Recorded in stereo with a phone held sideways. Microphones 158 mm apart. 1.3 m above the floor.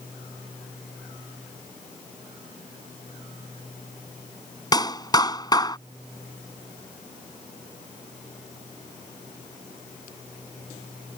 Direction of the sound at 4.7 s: 25° left (ahead or behind).